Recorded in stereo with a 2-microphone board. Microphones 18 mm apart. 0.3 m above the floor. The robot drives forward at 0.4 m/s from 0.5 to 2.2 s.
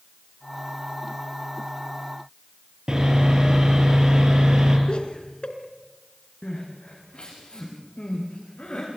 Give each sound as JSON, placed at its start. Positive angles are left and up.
{"t": 2.9, "sound": "sawing", "side_deg": -45, "distance_m": 5.5}
{"t": 4.9, "sound": "laughter", "side_deg": 55, "distance_m": 4.0}
{"t": 6.4, "sound": "crying", "side_deg": 70, "distance_m": 9.5}